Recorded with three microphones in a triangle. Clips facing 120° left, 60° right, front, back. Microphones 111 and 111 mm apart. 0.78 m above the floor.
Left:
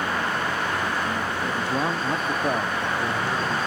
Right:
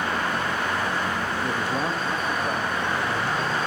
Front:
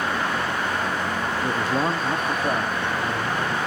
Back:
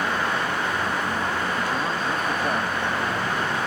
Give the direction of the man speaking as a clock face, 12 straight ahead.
12 o'clock.